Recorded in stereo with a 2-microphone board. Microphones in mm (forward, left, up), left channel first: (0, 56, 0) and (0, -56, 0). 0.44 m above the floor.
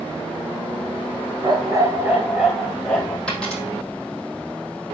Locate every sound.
1.4 s a dog barking: 45° right (ahead or behind), 1.8 m; by 3.2 s 10° left (ahead or behind), 2.5 m
3.3 s a dropped coin: 10° left (ahead or behind), 5.5 m